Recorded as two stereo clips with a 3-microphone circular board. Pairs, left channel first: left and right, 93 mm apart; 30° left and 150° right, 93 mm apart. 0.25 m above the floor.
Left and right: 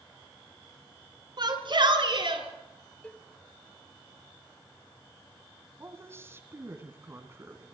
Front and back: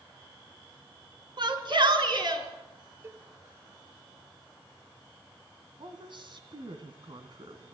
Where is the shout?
120° right, 3.5 m; by 2.4 s 110° right, 4.5 m.